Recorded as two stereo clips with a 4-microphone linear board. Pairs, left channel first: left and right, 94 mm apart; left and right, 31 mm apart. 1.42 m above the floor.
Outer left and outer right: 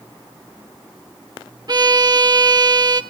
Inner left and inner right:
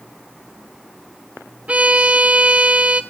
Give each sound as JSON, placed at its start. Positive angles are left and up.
{"t": 1.7, "sound": "a violin", "side_deg": -45, "distance_m": 1.3}